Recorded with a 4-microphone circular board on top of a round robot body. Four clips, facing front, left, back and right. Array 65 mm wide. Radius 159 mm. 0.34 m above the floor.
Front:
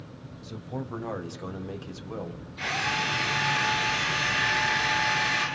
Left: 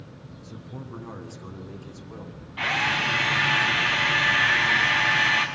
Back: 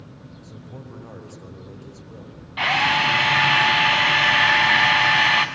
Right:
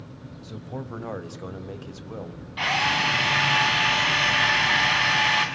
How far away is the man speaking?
About 3.5 m.